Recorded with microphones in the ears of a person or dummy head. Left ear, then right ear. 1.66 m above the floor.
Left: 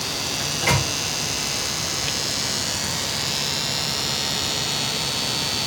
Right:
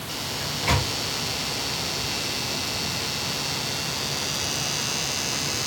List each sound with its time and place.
0.4 s a microwave: 60° left (ahead or behind), 1.8 m